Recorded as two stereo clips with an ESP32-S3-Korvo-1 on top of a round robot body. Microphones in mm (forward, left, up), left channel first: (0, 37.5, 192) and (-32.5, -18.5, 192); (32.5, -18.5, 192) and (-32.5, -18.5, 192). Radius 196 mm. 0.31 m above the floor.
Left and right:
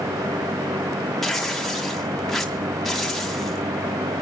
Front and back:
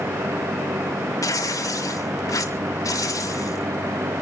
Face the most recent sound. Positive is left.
turn(degrees=-25)